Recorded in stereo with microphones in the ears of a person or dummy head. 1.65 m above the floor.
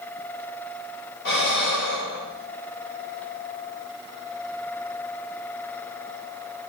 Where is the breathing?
70° left (ahead or behind), 3 m.